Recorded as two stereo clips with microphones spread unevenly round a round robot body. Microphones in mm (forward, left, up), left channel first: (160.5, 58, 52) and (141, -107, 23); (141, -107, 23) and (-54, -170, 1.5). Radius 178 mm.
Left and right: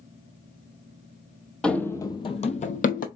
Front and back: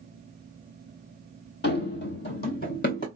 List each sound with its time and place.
1.6 s running footsteps: 5° left, 0.7 m; by 3.1 s 75° left, 0.7 m